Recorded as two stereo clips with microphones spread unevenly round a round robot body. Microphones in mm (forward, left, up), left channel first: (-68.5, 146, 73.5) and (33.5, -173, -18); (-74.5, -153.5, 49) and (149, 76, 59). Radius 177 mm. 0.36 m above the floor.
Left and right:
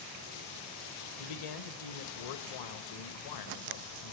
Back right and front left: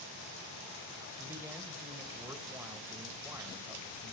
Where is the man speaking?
130° left, 2 m.